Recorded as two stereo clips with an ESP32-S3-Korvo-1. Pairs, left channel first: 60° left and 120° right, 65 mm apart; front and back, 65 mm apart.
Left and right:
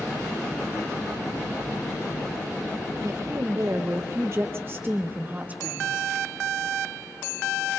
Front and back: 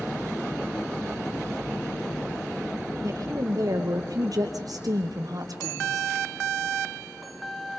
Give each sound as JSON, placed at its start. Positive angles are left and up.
{"t": 3.0, "sound": "a woman speaking", "azimuth_deg": -150, "distance_m": 3.5}